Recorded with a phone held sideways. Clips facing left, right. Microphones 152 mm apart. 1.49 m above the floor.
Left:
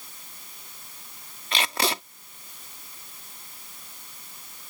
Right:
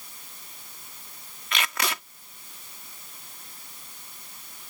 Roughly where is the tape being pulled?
Left.